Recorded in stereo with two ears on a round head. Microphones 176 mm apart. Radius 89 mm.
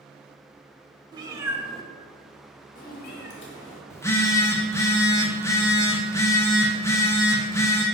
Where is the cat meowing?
25° right (ahead or behind), 1.2 m; by 3.8 s 70° left (ahead or behind), 1.6 m.